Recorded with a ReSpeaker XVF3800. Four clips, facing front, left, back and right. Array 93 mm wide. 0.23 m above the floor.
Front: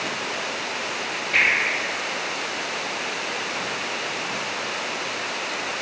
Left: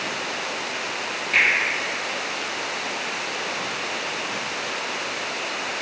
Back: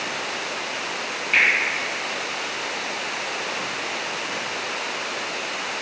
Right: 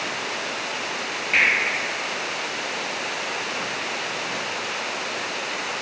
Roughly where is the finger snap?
Behind right.